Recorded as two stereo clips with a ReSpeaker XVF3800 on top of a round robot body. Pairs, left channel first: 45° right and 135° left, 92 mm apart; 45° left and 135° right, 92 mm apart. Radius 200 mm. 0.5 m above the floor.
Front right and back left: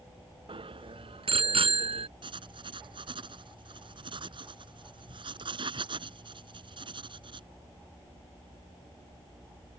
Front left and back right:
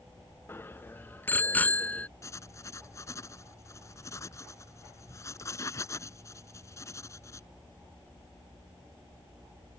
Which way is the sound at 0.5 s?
110° left.